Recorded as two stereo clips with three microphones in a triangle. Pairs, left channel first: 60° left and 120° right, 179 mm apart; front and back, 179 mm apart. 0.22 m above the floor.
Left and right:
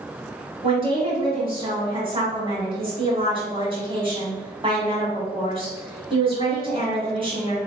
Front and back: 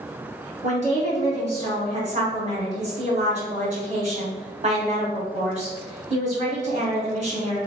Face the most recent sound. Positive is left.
turn(degrees=-160)